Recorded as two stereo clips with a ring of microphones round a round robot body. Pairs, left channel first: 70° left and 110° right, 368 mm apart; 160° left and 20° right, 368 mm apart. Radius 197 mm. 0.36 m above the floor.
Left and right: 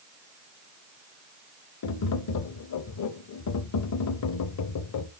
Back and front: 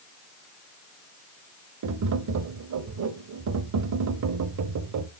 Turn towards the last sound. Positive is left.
turn(degrees=25)